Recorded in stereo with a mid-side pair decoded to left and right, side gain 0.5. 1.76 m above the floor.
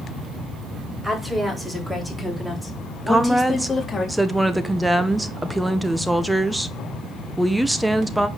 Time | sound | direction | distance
1.0 | a woman speaking | 10° right | 5 m
3.1 | a woman speaking | 10° right | 1.4 m